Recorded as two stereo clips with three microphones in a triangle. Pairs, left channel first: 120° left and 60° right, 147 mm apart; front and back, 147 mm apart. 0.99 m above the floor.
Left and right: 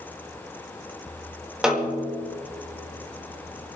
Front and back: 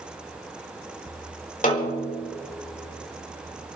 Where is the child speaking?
No child speaking in this recording.